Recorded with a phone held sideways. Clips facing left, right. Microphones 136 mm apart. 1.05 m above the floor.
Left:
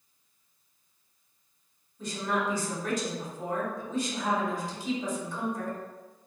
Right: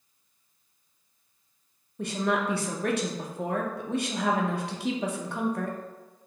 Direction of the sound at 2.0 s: 70° right (ahead or behind).